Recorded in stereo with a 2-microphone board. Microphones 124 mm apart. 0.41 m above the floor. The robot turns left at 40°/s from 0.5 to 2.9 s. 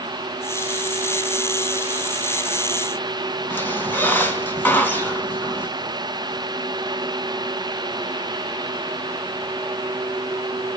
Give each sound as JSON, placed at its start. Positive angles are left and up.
{"t": 3.5, "sound": "a squeak", "side_deg": 15, "distance_m": 3.0}